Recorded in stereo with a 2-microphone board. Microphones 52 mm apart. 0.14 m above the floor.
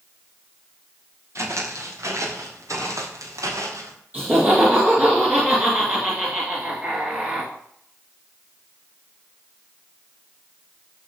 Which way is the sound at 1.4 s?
60° right (ahead or behind).